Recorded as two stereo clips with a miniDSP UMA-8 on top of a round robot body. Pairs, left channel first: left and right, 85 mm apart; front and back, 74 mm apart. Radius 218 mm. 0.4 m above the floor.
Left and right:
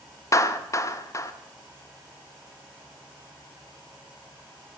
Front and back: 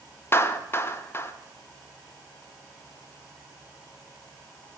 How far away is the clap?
About 1.6 m.